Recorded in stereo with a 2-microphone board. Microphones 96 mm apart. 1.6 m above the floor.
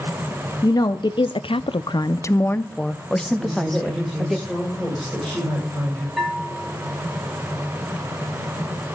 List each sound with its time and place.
0.6 s a woman speaking: 40° left (ahead or behind), 1.1 m; by 4.4 s centre (ahead or behind), 2.5 m
3.4 s a woman speaking: 5° left (ahead or behind), 7.5 m
6.2 s a bell: 5° right (ahead or behind), 5 m